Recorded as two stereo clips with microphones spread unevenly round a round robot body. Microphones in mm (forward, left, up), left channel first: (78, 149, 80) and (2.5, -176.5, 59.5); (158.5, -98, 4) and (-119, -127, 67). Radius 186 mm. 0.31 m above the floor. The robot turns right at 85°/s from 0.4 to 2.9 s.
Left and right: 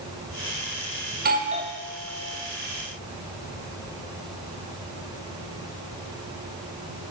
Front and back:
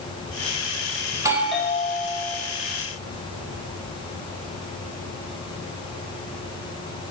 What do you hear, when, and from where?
1.1 s a doorbell: 95° right, 1.6 m; by 2.4 s 15° left, 1.6 m